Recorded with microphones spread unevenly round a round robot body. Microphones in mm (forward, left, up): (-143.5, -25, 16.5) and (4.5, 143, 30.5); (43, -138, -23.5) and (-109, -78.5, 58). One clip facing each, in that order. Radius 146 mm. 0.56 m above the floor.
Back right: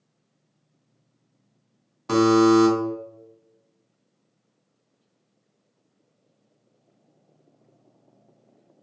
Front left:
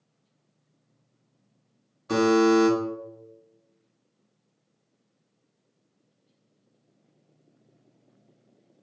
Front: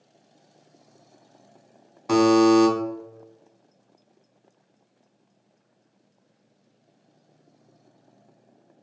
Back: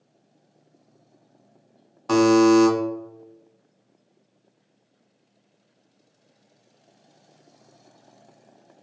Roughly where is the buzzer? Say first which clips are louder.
Back right 3 dB, back 1 dB; right.